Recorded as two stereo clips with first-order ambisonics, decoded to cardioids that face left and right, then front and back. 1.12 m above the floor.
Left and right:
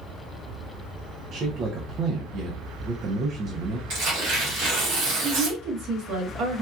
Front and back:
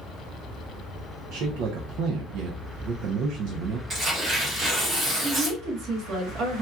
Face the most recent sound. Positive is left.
turn(degrees=-130)